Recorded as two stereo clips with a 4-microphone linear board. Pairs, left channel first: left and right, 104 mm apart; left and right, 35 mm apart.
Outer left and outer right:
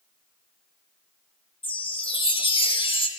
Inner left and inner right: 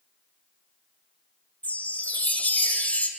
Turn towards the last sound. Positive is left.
turn(degrees=55)  # may be behind; listen again after turning